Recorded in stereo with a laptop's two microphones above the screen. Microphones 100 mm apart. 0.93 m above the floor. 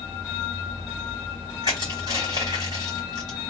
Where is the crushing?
45° right (ahead or behind), 2 m.